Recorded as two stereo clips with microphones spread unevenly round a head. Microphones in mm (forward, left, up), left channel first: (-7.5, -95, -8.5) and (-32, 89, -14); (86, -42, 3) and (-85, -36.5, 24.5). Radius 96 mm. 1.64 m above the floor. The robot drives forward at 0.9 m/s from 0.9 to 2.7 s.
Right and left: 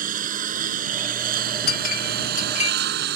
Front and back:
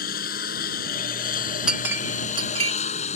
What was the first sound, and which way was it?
A lawn mower, 45° left.